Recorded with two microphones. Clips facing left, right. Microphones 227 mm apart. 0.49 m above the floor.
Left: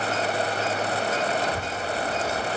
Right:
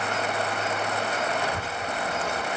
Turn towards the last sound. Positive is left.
turn(degrees=10)  # may be behind; listen again after turning